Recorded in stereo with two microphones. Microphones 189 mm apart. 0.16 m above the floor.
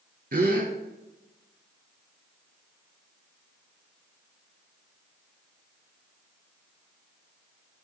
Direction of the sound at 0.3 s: 55° right (ahead or behind).